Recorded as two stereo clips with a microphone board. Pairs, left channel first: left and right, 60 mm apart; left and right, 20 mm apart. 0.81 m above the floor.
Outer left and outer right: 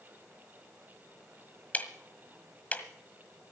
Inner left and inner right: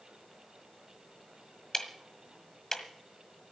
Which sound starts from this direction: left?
Ticking, at 1.7 s.